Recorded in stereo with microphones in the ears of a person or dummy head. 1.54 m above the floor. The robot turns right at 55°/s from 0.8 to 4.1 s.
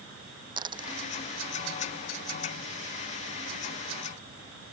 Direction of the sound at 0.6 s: 25° right (ahead or behind).